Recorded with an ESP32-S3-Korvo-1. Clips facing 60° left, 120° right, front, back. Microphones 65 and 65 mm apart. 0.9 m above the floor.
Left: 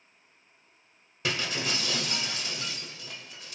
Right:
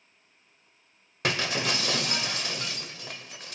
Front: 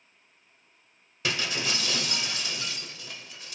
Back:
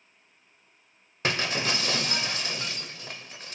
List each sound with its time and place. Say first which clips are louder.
1.2 s breaking glass: right 3 dB, back 3 dB; 140° right, 1.2 m